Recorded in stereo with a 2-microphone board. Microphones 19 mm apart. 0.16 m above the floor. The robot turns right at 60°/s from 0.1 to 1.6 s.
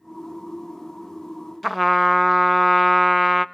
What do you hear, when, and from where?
1.6 s a trumpet: centre (ahead or behind), 0.6 m